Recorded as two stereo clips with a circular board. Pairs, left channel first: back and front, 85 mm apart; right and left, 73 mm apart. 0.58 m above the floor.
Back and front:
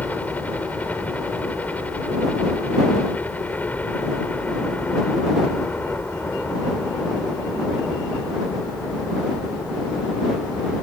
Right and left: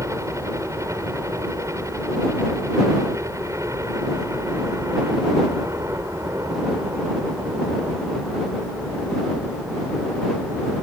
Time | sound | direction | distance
0.0 | a helicopter | 115° left | ?